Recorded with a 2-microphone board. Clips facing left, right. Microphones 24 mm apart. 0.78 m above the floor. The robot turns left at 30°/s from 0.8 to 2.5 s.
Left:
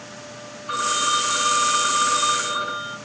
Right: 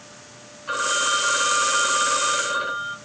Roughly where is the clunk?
I don't hear a clunk.